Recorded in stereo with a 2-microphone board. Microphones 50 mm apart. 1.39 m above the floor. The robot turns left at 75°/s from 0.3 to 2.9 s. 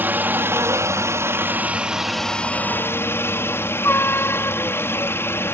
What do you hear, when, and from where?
0.0 s a helicopter: 40° right; by 5.5 s 125° left